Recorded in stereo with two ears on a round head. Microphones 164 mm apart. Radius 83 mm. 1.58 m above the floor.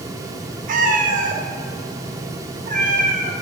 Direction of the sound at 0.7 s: 45° right (ahead or behind).